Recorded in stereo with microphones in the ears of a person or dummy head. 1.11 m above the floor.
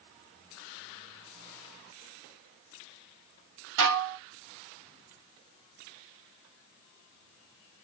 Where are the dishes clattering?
75° right (ahead or behind), 0.8 m.